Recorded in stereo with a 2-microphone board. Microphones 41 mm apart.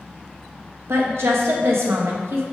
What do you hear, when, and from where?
0.9 s a woman speaking: 85° right, 1.3 m